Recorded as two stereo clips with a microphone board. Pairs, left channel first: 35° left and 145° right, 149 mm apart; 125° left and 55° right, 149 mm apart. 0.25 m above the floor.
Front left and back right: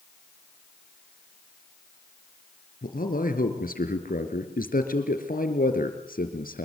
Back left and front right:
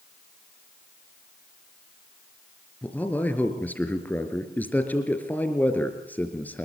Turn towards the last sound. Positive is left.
turn(degrees=45)